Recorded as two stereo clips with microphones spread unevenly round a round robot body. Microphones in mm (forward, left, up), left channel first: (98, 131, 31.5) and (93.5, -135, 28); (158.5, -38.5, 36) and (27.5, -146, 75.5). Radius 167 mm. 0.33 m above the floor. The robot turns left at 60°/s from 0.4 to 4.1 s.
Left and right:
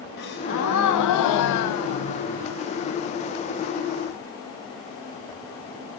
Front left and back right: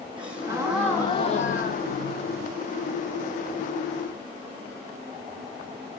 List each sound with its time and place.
0.2 s a gasp: 145° left, 1.2 m; by 2.5 s 15° left, 1.2 m